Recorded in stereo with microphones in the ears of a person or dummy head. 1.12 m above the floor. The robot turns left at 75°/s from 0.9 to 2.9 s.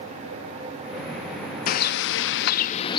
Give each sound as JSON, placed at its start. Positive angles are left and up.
{"t": 1.7, "sound": "a bird", "azimuth_deg": 125, "distance_m": 0.7}